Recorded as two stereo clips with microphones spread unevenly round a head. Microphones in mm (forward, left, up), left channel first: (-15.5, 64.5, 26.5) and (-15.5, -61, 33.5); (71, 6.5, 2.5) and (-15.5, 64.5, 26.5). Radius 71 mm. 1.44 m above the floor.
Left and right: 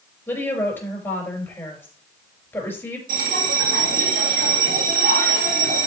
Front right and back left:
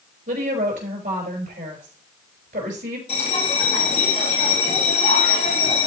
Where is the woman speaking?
165° left, 5.5 m.